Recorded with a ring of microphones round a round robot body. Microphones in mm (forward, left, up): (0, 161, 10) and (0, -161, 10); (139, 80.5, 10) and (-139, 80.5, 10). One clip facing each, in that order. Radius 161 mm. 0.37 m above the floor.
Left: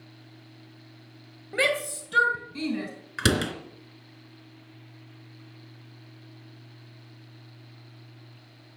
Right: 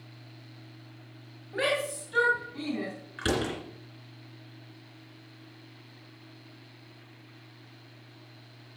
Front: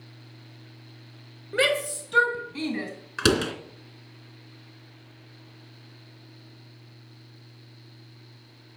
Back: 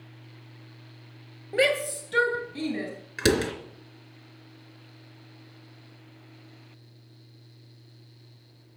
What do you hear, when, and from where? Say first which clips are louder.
1.5 s a shout: left 2 dB, back 1 dB; 75° left, 2.5 m; by 2.9 s 65° left, 3.5 m
3.2 s a door slam: left 3 dB, even; 70° left, 2.5 m